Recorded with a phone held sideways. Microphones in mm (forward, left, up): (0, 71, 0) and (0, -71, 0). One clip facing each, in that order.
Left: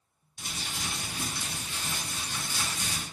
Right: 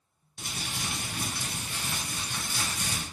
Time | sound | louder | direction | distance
0.4 | crumpling | right 1 dB | 60° right (ahead or behind) | 0.7 m